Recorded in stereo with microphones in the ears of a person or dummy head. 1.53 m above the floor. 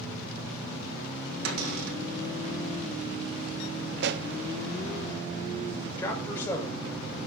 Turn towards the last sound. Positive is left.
turn(degrees=15)  # may be behind; listen again after turning